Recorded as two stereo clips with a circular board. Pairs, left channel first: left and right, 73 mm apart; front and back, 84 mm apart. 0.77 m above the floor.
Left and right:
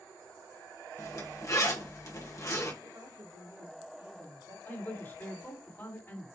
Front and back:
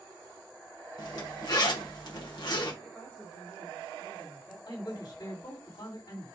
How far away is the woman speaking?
About 2.5 m.